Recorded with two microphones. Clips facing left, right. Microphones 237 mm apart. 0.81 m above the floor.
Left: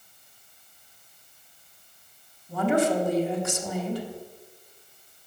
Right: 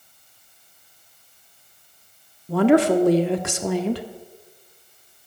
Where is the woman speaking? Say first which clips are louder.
Right 8 dB; 75° right (ahead or behind), 1.5 m.